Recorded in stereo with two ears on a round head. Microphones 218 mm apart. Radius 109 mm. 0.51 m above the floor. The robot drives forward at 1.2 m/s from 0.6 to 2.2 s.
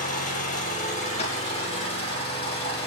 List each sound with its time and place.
0.0 s an engine running: 35° left (ahead or behind), 4 m; by 2.9 s 25° left (ahead or behind), 6 m
1.2 s tapping: 30° left (ahead or behind), 4 m; by 1.3 s 25° left (ahead or behind), 4 m